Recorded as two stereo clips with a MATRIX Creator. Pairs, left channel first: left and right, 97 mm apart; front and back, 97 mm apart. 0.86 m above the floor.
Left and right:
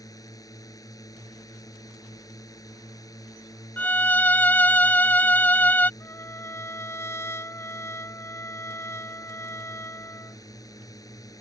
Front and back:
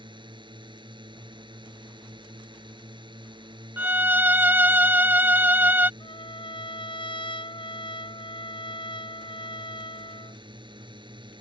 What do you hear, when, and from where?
0.0 s a drone: 145° left
3.8 s a violin: 135° left
6.0 s a trumpet: 30° left